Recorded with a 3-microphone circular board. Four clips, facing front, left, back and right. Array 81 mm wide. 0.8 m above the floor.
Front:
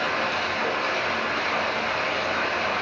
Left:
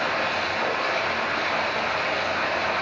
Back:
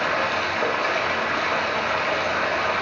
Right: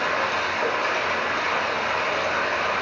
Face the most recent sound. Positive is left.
turn(degrees=-170)